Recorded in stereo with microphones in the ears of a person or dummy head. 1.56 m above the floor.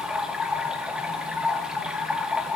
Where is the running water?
5° right (ahead or behind), 1.4 m.